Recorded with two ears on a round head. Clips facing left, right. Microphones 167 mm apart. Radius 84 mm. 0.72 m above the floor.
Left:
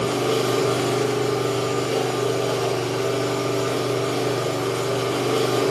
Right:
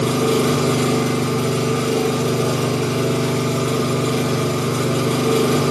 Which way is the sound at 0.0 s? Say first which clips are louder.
Right 4 dB; 65° right (ahead or behind).